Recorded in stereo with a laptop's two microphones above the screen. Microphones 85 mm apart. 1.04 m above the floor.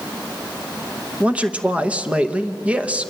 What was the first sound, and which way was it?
A man speaking, 15° right (ahead or behind).